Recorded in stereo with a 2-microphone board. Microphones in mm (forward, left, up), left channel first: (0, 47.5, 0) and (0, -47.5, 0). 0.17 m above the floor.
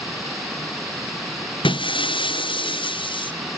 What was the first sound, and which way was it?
Breaking glass, 65° left (ahead or behind).